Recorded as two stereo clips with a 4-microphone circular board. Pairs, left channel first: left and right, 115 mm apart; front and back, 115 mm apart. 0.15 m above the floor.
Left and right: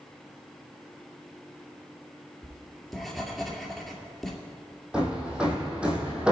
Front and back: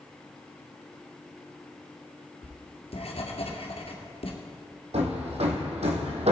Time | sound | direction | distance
2.4 | writing | straight ahead | 1.8 m
4.9 | hammering | 170° right | 2.5 m